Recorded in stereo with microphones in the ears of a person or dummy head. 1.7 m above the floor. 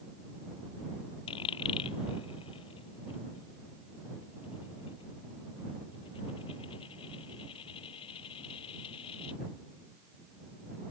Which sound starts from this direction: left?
A dropped coin, at 1.3 s.